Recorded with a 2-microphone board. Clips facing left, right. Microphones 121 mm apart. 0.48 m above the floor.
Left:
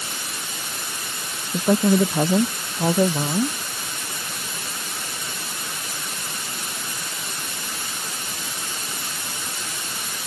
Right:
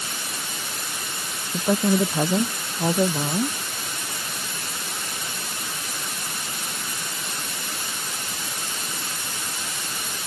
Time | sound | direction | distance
1.5 | a woman speaking | 10° left (ahead or behind) | ?